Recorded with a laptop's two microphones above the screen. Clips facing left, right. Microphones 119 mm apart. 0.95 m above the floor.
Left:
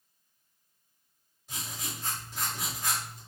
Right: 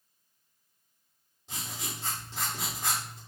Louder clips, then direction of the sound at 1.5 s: Right 1 dB; 25° right (ahead or behind).